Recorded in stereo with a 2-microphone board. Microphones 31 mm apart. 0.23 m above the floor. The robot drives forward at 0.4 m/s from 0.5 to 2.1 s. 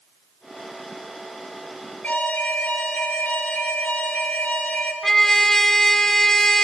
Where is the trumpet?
15° left (ahead or behind), 1.3 m.